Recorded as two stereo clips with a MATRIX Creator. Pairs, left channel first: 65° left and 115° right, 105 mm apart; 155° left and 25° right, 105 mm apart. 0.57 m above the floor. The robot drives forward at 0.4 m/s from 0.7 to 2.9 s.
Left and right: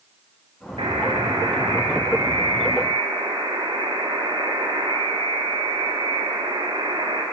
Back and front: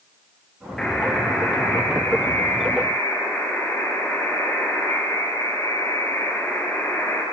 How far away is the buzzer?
About 2 m.